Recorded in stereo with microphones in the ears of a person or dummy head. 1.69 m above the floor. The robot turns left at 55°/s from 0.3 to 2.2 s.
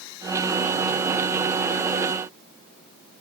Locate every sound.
Only background noise.